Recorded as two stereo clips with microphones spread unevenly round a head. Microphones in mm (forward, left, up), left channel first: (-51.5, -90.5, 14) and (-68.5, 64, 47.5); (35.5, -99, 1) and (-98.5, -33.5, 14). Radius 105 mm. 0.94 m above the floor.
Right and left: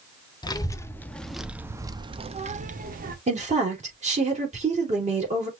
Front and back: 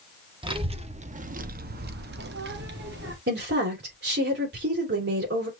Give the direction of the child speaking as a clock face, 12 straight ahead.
5 o'clock.